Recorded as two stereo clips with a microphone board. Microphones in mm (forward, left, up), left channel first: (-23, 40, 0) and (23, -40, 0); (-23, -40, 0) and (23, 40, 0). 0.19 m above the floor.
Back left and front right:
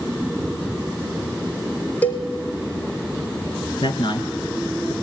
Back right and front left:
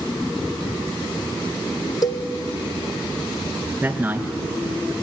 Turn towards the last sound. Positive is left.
turn(degrees=130)